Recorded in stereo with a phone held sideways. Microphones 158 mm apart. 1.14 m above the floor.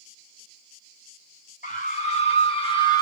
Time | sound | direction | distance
1.6 | a scream | 50° left (ahead or behind) | 2 m